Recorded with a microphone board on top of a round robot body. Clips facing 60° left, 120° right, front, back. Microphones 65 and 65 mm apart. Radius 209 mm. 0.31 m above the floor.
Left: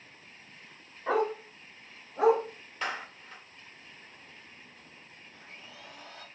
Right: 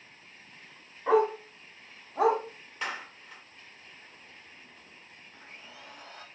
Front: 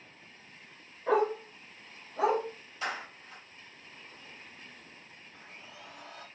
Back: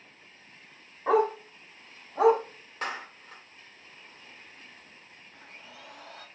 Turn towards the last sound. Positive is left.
turn(degrees=-170)